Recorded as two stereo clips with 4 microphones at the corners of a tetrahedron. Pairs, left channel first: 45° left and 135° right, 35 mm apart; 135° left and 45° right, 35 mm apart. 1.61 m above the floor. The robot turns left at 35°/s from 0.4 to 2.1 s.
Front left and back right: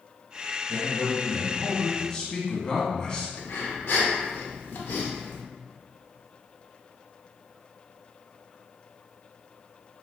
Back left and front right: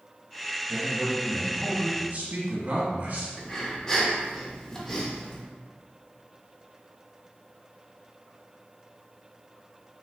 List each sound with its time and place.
0.7 s a man speaking: 35° left, 1.0 m; by 3.3 s 15° right, 1.0 m
3.4 s breathing: 60° left, 0.6 m